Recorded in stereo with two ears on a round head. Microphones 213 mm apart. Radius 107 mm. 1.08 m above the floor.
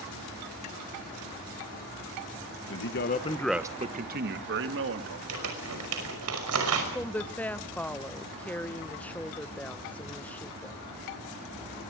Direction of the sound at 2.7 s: 60° left (ahead or behind).